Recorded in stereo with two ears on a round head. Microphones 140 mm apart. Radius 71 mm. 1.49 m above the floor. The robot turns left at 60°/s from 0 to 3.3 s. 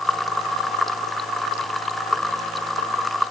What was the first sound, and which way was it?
Only background noise.